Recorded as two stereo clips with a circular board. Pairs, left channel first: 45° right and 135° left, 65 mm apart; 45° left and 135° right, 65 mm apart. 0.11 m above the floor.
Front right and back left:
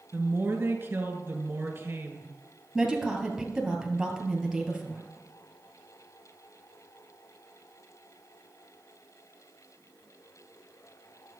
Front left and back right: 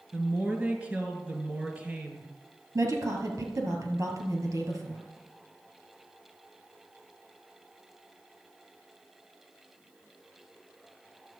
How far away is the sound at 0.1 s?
About 1.5 m.